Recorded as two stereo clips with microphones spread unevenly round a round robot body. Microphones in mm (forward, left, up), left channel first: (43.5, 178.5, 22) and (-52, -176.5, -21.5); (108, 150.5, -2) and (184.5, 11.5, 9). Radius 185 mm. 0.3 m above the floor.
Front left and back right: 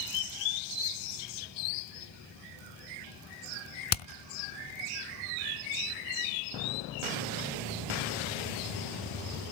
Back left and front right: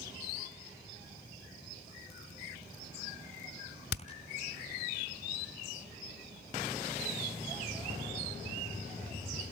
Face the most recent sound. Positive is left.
turn(degrees=140)